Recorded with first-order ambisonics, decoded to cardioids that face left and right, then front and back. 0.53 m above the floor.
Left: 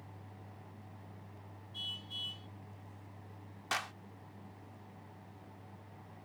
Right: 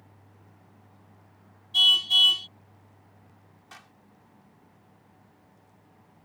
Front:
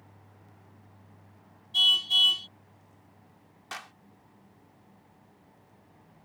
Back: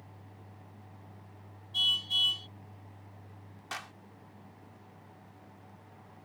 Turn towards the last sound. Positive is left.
turn(degrees=90)